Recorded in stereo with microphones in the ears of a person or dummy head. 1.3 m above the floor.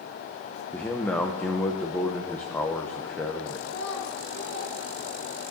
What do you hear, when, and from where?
0.7 s a man speaking: 5° left (ahead or behind), 0.7 m
3.6 s a child speaking: 60° left (ahead or behind), 1.6 m